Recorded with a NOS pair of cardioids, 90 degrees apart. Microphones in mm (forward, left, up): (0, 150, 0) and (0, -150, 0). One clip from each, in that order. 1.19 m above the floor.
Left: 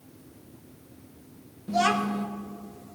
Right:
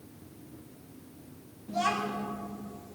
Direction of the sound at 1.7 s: 45° left.